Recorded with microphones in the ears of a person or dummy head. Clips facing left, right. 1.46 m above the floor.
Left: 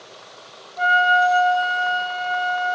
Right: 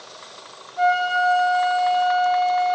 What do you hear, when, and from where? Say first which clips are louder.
0.8 s a flute: even; 5° right (ahead or behind), 0.5 m